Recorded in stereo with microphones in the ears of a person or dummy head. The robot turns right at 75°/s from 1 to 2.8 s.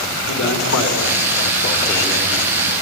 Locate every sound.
0.3 s a man speaking: 95° left, 6 m; by 2.5 s 150° right, 6 m